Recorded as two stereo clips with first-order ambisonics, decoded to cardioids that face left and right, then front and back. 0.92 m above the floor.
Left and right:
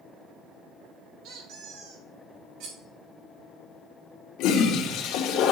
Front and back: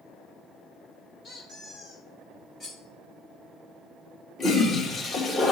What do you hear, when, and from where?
1.2 s a squeak: 70° right, 2 m
2.6 s cutlery clinking: 70° right, 2.5 m
4.4 s a toilet flushing: 65° left, 1.2 m